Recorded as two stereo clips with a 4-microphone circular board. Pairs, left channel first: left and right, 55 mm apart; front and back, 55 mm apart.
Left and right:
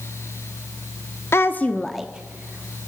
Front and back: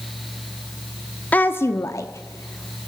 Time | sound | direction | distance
1.3 | a woman speaking | 60° left | 0.9 m